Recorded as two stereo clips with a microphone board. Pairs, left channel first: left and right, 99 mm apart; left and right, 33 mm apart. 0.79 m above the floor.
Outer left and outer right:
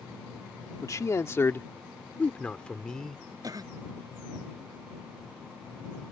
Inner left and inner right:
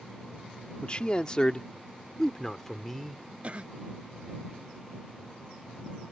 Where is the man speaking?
35° left (ahead or behind); by 3.2 s 5° left (ahead or behind).